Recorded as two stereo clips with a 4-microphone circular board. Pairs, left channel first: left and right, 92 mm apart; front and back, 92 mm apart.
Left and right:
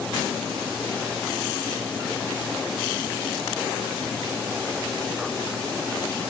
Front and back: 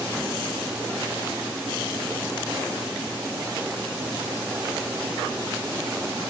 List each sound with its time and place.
Only background noise.